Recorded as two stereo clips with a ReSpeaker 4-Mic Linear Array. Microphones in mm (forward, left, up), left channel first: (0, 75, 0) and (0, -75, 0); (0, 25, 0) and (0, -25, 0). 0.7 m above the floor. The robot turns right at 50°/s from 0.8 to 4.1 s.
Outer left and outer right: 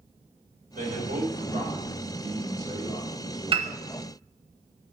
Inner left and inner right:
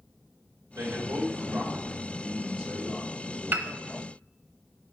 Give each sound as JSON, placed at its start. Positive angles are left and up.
{"t": 0.8, "sound": "a man speaking", "azimuth_deg": -90, "distance_m": 3.5}
{"t": 3.5, "sound": "a piano", "side_deg": -35, "distance_m": 0.8}